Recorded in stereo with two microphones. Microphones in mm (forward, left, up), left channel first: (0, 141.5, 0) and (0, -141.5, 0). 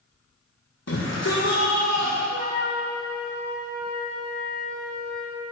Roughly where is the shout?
Left.